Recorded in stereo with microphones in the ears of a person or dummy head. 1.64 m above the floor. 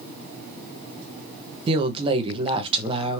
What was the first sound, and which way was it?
A woman speaking, 30° right (ahead or behind).